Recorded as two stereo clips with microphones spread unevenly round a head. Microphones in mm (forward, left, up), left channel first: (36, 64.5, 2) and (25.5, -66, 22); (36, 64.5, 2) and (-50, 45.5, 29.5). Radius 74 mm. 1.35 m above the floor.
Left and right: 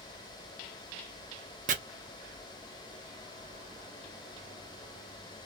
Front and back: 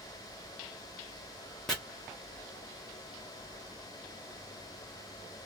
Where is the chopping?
70° right, 0.8 m.